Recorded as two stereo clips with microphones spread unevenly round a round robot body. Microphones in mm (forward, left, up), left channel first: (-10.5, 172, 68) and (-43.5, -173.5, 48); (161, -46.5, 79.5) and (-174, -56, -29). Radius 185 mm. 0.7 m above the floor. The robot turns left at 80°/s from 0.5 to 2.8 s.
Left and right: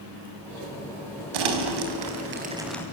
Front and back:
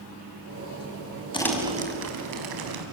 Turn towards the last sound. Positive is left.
turn(degrees=170)